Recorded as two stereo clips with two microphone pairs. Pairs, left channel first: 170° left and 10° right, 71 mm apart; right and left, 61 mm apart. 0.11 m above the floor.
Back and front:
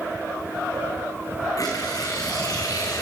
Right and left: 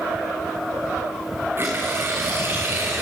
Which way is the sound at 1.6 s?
140° left.